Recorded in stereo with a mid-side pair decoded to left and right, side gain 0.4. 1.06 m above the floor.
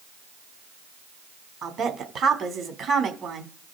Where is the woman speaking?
70° right, 3 m.